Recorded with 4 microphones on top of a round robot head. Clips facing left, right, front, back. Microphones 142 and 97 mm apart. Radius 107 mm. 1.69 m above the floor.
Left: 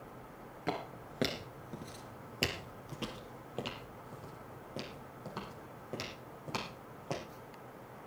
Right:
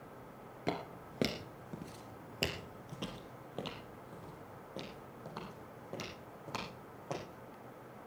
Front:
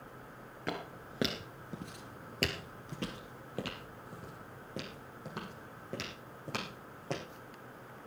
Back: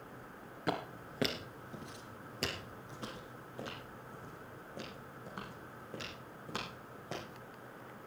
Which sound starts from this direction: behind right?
Footsteps, at 0.7 s.